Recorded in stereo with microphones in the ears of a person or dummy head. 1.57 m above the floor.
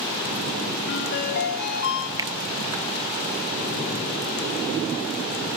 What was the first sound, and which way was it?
A ringtone, 55° left (ahead or behind).